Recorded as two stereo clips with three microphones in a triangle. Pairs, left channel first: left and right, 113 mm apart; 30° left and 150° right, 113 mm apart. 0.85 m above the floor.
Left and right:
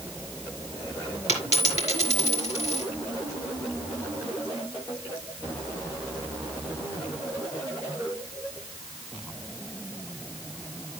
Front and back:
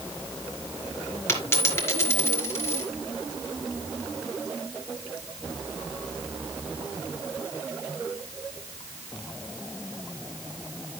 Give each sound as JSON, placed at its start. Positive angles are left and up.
{"t": 1.3, "sound": "a dropped coin", "azimuth_deg": 95, "distance_m": 4.5}